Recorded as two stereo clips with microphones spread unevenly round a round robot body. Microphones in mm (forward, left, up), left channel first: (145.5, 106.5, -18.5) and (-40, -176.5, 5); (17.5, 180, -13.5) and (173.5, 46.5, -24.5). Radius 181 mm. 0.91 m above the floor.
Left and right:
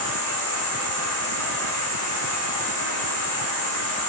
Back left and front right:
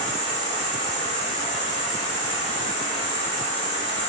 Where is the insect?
155° right, 1.3 m.